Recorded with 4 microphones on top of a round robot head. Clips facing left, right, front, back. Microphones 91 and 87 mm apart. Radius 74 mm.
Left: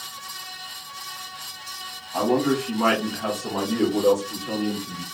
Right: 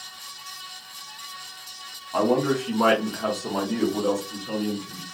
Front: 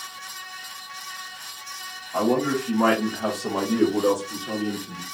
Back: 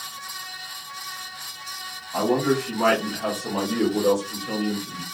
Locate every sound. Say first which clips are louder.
2.1 s a man speaking: even, back 1 dB; 95° right, 1.1 m; by 5.0 s 40° left, 1.2 m